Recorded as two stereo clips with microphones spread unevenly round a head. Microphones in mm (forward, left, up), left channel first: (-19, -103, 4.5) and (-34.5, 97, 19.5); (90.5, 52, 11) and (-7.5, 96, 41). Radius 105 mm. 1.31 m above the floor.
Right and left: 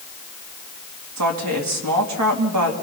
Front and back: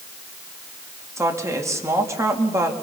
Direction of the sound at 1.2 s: 90° left.